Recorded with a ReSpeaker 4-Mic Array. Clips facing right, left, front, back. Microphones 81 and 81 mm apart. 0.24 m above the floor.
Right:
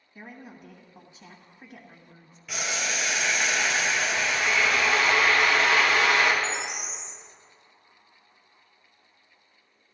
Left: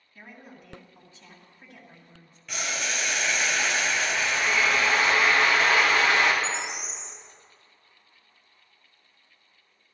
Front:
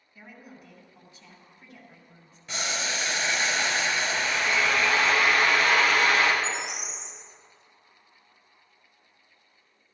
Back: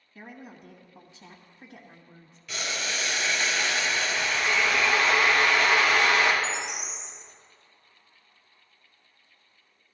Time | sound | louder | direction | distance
0.1 | a woman speaking | right 3 dB, back 3 dB | 145° right | 1.3 m
2.5 | boiling | right 1 dB, front 1 dB | 5° right | 1.4 m
4.1 | a drill | even, back 1 dB | 40° left | 2.5 m
6.4 | a bird | even, even | 40° left | 4 m